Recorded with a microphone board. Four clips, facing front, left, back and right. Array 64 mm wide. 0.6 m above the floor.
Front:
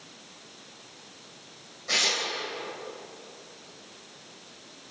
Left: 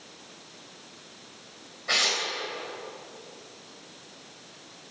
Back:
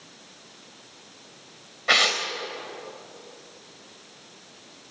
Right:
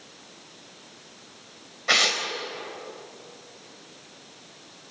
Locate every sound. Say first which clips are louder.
1.9 s tearing paper: right 4 dB, back 7 dB; 160° right, 3 m